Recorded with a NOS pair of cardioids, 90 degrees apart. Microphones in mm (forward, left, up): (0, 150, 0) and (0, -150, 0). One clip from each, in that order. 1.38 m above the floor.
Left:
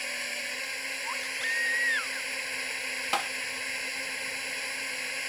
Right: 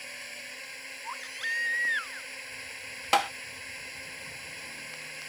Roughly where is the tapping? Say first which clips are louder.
Right 6 dB; ahead right.